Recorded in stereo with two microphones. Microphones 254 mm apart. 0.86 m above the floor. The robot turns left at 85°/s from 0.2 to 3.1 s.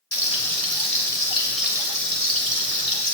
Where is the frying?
120° left, 2.5 m; by 3.1 s 130° right, 2.5 m.